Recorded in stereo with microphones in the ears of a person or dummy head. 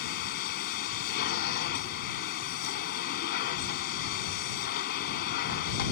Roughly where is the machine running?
Left.